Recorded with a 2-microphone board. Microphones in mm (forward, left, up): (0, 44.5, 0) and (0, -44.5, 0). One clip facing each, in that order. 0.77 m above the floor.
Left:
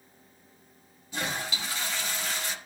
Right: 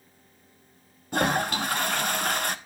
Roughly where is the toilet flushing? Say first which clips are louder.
Right 9 dB; right.